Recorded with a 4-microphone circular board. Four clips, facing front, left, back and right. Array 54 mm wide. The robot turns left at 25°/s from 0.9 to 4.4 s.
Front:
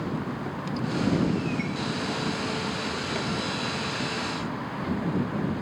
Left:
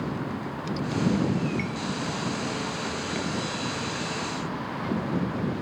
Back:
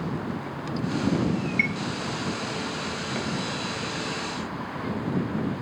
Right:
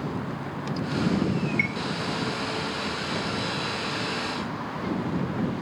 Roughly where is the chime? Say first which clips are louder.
Right 5 dB, back 5 dB; behind right.